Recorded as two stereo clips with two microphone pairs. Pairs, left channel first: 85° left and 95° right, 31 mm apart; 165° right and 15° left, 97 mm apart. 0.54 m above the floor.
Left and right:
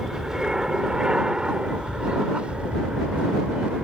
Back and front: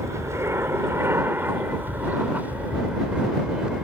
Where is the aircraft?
30° right; by 3.9 s 60° right.